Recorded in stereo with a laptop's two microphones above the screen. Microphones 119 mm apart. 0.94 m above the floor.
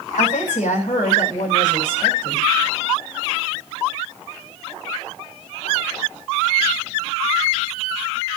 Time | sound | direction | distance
0.2 | a woman speaking | 85° left | 6.5 m